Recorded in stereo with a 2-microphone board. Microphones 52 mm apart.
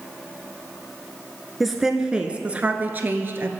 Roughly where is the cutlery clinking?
No cutlery clinking in this recording.